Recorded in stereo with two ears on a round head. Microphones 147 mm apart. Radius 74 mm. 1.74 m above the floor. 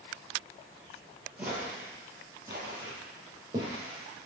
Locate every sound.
1.4 s footsteps: 5° right (ahead or behind), 2.0 m; by 4.0 s 30° right (ahead or behind), 3 m